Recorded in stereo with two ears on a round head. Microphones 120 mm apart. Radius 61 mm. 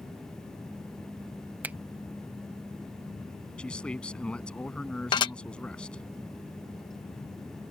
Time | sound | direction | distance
1.6 | a finger snap | 10° right (ahead or behind) | ?
3.6 | a man speaking | 10° left (ahead or behind) | ?
5.1 | dishes clattering | 35° left (ahead or behind) | ?